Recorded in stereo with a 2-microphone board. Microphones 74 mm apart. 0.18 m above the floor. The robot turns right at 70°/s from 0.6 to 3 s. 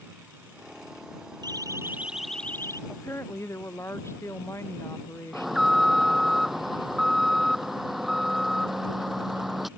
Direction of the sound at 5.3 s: Centre (ahead or behind).